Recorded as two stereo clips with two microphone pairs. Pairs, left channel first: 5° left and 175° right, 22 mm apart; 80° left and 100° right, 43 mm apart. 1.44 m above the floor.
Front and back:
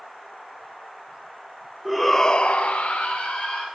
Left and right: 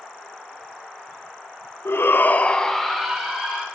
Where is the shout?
100° left, 0.8 m; by 3.6 s 20° right, 1.8 m.